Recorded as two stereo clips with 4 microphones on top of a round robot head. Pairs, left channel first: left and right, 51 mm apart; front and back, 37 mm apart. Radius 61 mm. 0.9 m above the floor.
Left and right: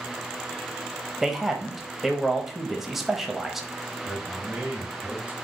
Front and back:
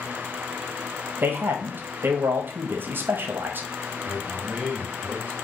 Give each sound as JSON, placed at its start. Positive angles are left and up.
{"t": 1.2, "sound": "a man speaking", "azimuth_deg": -175, "distance_m": 0.7}
{"t": 4.0, "sound": "a man speaking", "azimuth_deg": -145, "distance_m": 2.0}